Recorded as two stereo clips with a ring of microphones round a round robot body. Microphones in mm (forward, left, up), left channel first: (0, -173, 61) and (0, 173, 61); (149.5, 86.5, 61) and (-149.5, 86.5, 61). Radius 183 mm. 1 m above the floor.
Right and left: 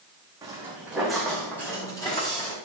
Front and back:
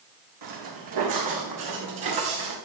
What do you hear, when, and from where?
0.4 s footsteps: 170° left, 4 m; by 2.5 s 165° right, 5 m